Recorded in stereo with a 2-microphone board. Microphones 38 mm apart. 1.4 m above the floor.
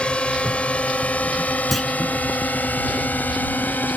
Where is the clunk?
5° left (ahead or behind).